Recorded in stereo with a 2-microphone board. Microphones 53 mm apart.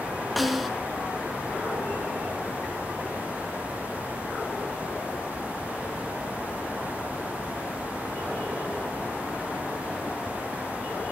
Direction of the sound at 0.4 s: Centre (ahead or behind).